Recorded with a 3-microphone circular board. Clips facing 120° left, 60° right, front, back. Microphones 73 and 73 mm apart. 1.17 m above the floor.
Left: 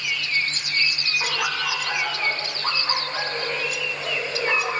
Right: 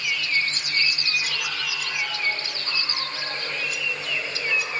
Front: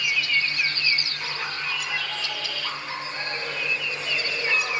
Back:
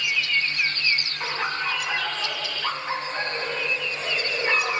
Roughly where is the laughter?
Behind left.